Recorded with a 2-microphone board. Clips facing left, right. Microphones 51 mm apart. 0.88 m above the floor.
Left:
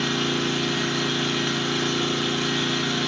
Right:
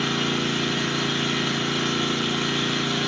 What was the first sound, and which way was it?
An engine running, 10° right (ahead or behind).